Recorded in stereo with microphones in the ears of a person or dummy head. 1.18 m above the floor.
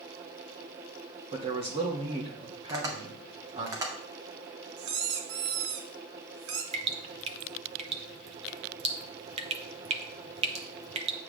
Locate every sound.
1.3 s a man speaking: 30° right (ahead or behind), 2.5 m
2.7 s tapping: 20° right (ahead or behind), 1.9 m
4.8 s a squeak: 85° right, 2 m
6.7 s dripping: 35° right (ahead or behind), 0.7 m